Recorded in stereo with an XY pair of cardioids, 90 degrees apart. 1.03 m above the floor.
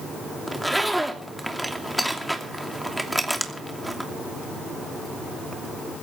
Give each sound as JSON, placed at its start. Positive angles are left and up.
{"t": 0.5, "sound": "a zipper", "azimuth_deg": -5, "distance_m": 2.5}